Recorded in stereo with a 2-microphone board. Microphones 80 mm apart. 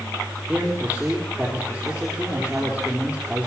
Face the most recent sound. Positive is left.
turn(degrees=-25)  # may be behind; listen again after turning